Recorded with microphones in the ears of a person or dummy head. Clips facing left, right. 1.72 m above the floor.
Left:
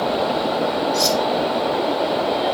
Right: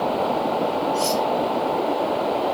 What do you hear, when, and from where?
0.9 s cutlery clinking: 80° left, 6.5 m